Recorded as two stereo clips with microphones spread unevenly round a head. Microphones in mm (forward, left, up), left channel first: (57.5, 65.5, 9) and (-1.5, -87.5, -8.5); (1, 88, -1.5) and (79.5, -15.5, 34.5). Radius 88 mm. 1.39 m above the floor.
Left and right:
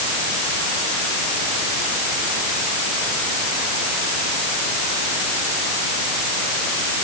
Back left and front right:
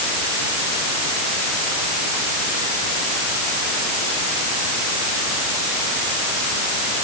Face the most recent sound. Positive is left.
No sound to turn to.